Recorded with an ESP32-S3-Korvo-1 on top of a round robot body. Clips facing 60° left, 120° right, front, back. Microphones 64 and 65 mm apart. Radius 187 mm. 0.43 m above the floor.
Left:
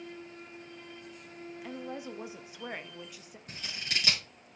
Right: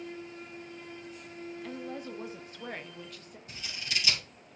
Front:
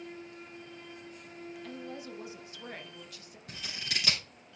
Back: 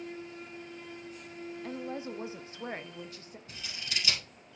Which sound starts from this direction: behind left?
A woman speaking, at 1.6 s.